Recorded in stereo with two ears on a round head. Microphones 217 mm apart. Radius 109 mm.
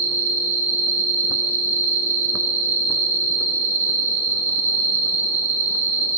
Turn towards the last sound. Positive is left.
turn(degrees=-35)  # may be behind; listen again after turning